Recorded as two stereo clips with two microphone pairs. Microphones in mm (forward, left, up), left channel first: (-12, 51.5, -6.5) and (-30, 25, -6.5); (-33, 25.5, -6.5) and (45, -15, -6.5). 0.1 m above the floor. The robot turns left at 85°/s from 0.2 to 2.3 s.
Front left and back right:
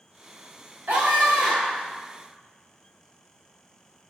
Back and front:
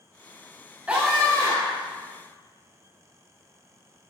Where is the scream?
100° right, 7.5 m; by 1.9 s 175° left, 7.5 m.